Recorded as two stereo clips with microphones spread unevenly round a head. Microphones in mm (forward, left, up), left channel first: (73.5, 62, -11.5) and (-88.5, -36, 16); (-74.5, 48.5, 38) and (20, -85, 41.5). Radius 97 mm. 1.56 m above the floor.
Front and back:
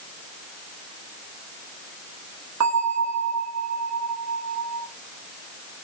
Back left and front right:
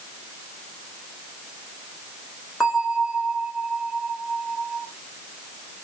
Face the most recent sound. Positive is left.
turn(degrees=-145)